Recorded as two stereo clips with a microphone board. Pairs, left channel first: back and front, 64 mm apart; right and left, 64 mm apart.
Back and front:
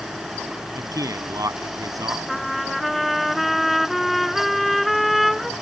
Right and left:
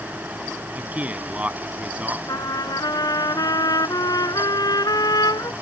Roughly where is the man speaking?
Ahead left.